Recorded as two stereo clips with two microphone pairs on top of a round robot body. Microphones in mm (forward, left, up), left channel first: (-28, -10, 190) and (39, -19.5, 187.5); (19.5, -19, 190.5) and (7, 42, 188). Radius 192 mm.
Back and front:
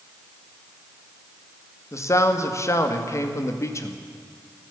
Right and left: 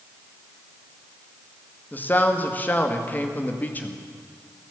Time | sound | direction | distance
1.9 | a man speaking | 140° right | 2 m